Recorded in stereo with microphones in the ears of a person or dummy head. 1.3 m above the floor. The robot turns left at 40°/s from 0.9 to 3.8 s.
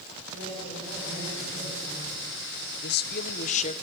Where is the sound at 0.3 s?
120° right, 8.5 m; by 2.3 s 175° right, 8.5 m.